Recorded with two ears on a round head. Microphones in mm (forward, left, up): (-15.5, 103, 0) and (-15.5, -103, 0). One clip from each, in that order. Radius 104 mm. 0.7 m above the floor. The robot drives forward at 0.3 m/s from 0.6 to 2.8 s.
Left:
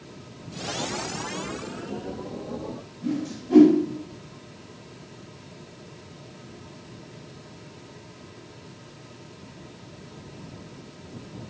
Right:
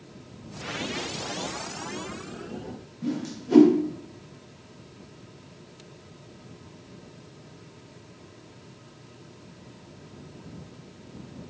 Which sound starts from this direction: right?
A whoosh, at 3.0 s.